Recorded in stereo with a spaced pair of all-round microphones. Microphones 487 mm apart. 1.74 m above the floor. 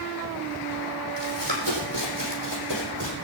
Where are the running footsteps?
60° right (ahead or behind), 5 m; by 3.1 s 50° right (ahead or behind), 5.5 m.